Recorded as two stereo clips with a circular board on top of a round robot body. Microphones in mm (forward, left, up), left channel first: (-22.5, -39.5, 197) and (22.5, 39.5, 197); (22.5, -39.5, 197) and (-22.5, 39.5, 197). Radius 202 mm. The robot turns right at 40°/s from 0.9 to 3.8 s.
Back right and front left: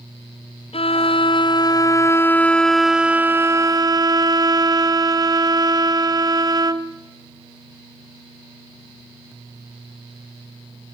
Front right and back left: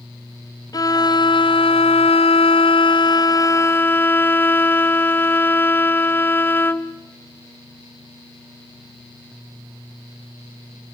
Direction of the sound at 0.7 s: 105° right.